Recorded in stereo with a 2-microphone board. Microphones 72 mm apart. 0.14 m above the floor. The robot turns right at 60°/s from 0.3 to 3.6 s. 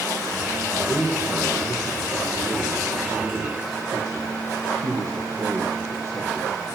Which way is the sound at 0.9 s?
145° left.